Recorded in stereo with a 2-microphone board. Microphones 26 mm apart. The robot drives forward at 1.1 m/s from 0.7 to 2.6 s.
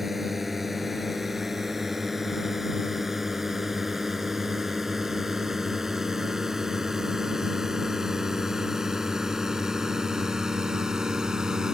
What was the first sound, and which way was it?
A drone, 10° right (ahead or behind).